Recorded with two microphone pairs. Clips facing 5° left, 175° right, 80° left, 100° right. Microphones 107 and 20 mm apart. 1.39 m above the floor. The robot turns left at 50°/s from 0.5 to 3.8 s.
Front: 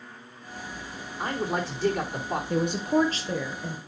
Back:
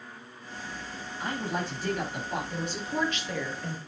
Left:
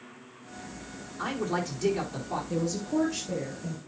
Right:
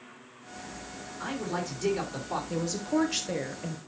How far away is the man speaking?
About 4 m.